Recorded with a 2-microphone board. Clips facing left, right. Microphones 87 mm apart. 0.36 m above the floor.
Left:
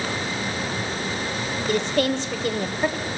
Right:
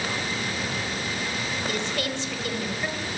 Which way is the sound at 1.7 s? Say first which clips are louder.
Left 11 dB; 40° left (ahead or behind).